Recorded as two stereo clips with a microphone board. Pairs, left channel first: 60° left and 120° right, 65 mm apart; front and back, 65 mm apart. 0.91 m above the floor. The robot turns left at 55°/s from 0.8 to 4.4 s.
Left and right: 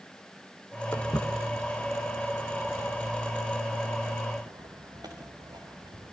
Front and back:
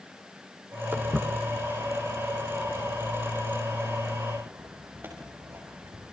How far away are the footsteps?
About 3.5 m.